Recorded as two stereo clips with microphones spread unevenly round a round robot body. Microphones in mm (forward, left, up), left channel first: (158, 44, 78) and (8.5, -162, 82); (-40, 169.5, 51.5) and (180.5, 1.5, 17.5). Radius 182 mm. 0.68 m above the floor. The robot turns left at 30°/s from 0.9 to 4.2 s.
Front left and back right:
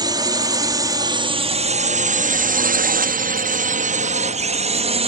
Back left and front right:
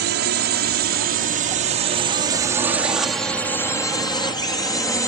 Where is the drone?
55° right; by 5.1 s 135° right.